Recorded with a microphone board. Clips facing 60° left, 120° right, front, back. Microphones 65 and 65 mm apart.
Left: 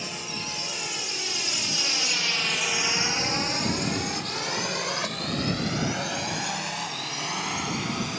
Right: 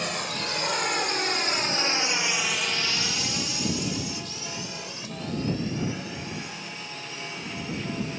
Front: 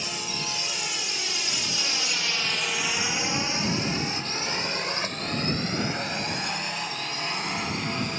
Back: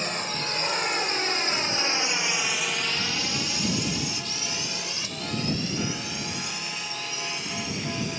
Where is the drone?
140° right; by 8.2 s 45° left.